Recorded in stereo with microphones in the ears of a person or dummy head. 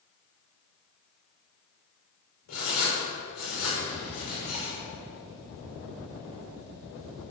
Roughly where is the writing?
Left.